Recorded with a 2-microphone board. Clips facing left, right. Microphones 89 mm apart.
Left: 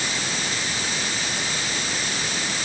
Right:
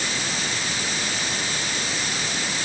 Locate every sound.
Only background noise.